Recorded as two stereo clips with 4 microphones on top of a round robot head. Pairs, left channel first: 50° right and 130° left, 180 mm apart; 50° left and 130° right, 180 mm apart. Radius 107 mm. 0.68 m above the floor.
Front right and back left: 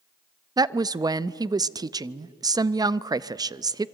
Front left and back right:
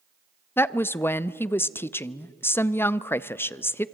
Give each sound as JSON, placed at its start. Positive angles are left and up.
{"t": 0.6, "sound": "a woman speaking", "azimuth_deg": 105, "distance_m": 0.5}